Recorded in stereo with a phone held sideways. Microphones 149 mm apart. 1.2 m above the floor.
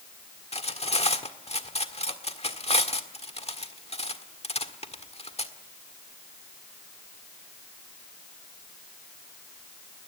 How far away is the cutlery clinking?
About 1.6 m.